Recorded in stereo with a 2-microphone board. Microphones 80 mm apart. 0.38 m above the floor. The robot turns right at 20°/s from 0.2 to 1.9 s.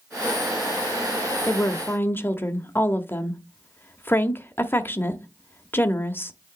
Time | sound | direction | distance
1.5 | a woman speaking | 30° left (ahead or behind) | 0.9 m